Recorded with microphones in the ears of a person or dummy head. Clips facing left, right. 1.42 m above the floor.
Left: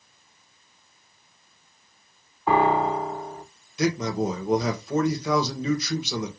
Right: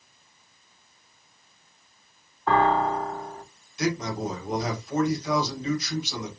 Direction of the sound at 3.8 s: 65° left (ahead or behind).